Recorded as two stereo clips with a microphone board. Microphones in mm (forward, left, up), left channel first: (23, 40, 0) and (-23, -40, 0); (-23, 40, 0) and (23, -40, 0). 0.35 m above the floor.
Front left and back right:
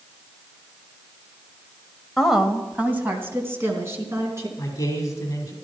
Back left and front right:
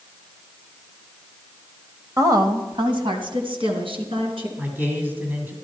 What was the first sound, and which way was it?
A woman speaking, 30° right.